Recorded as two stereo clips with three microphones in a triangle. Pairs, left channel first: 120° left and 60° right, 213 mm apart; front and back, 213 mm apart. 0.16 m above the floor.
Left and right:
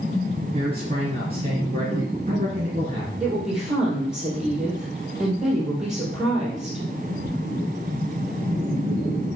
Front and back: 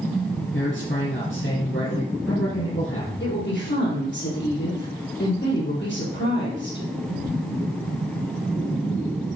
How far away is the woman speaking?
About 4 m.